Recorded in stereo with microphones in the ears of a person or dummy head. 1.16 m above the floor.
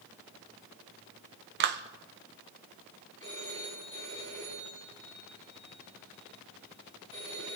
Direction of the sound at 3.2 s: 35° right (ahead or behind).